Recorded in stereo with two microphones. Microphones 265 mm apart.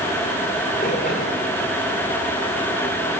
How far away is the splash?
About 10 m.